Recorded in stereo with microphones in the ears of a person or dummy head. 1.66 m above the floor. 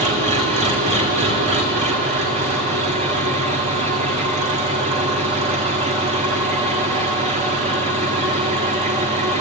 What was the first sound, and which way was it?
An engine running, 35° right (ahead or behind).